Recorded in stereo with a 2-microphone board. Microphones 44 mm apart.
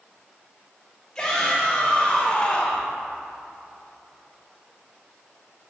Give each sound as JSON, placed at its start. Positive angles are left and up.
{"t": 1.1, "sound": "a shout", "side_deg": 20, "distance_m": 1.5}